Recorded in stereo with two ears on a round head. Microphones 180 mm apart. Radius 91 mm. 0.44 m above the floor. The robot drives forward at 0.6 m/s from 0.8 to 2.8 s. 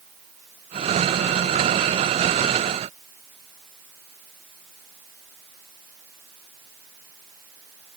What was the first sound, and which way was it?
Only background noise.